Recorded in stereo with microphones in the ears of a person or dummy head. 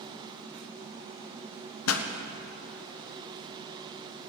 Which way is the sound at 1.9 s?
85° left.